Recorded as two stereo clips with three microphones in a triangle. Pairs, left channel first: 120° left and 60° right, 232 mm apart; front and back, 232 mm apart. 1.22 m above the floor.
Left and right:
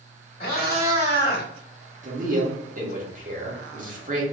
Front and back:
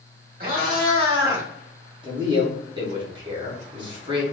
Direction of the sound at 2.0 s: 115° right.